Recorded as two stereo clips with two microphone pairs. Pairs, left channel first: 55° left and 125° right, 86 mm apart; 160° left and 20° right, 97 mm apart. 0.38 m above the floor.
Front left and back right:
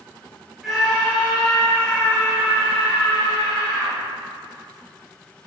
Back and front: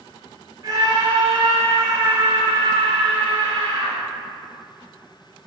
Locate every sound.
0.6 s a scream: 40° right, 1.8 m; by 4.0 s straight ahead, 3 m